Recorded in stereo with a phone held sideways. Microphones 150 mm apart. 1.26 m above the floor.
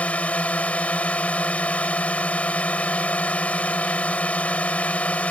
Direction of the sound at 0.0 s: 10° left (ahead or behind).